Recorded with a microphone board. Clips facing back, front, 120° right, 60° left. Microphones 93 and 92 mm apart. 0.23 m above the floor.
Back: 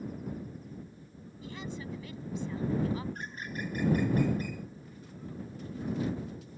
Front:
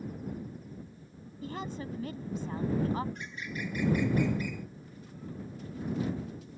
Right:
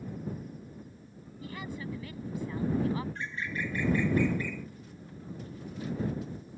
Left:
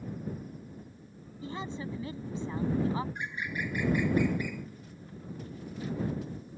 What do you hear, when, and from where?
1.4 s a woman speaking: 10° left
3.1 s a bird: 135° left